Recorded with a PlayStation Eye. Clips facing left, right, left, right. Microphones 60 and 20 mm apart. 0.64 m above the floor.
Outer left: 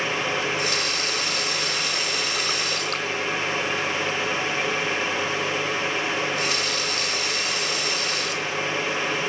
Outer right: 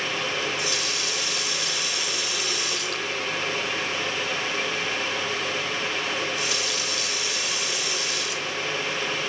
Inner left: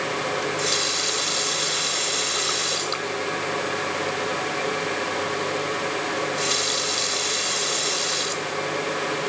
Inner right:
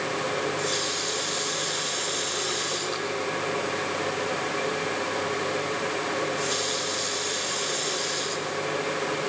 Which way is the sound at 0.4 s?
55° left (ahead or behind).